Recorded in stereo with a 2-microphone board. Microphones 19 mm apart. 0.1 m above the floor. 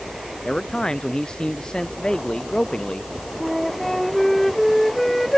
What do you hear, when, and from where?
0.5 s a man speaking: 45° left (ahead or behind)
3.4 s a flute: 15° left (ahead or behind)